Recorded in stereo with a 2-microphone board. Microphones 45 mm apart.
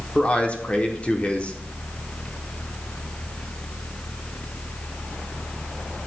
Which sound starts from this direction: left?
A man speaking, at 0.1 s.